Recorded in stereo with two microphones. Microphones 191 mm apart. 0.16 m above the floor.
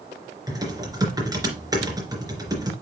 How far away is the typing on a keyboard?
About 3 m.